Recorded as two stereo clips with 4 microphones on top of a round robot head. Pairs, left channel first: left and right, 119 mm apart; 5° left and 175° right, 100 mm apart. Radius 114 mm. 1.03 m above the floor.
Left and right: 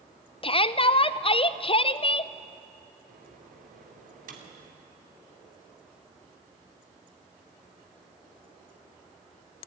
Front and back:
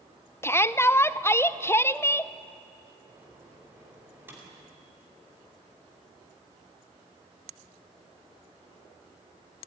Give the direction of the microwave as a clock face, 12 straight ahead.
3 o'clock.